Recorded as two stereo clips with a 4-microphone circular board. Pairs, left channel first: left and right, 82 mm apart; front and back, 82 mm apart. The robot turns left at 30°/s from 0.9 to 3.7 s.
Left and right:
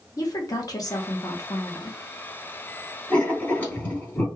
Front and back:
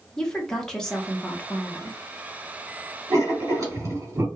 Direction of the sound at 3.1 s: 165° left.